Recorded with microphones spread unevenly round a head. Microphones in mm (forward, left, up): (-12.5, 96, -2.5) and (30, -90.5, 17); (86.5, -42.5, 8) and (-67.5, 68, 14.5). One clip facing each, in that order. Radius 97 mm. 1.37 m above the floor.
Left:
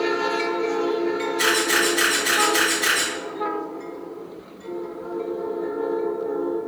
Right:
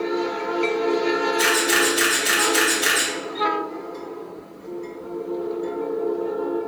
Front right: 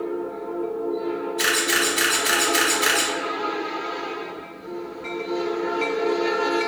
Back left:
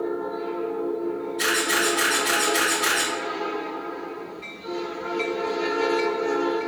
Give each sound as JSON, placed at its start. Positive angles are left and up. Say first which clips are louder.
{"t": 1.4, "sound": "a camera shutter", "louder": "right 1 dB, even", "azimuth_deg": -10, "distance_m": 2.0}